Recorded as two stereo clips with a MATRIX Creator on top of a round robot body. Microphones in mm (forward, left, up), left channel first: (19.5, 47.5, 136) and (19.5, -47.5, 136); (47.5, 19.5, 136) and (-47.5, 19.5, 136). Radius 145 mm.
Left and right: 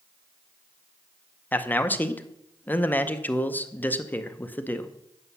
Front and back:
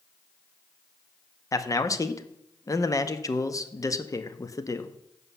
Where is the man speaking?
30° left, 0.9 m.